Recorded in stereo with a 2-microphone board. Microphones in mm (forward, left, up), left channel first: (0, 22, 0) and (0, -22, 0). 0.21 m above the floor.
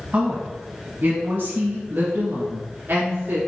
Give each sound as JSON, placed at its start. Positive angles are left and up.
{"t": 0.1, "sound": "a woman speaking", "side_deg": -35, "distance_m": 1.3}